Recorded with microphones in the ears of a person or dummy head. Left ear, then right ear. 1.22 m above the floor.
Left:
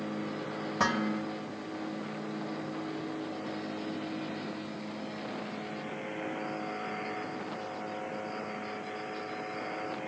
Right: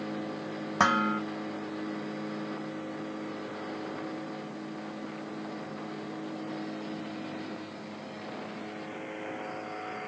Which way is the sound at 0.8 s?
35° right (ahead or behind).